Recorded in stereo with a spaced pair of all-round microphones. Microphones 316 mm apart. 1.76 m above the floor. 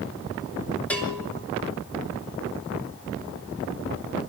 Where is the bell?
5° left (ahead or behind), 4 m.